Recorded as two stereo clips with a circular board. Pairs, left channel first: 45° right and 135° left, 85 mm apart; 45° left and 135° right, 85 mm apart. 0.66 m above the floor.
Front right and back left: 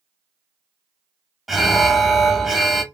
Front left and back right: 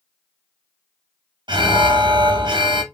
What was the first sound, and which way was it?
An alarm, 135° right.